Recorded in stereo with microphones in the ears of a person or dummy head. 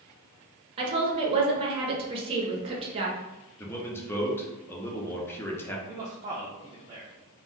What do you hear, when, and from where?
0.8 s a woman speaking: 30° right (ahead or behind), 0.9 m
3.6 s a man speaking: 15° left (ahead or behind), 0.6 m
5.9 s a man speaking: 25° right (ahead or behind), 0.5 m